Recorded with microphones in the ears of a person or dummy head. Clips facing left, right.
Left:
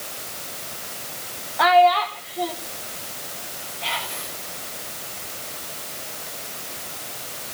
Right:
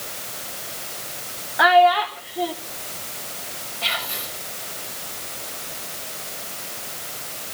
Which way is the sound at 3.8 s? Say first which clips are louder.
Even; 70° right (ahead or behind).